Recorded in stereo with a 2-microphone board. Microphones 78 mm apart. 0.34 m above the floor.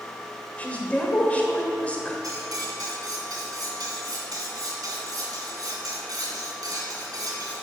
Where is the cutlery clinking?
55° right (ahead or behind), 2 m.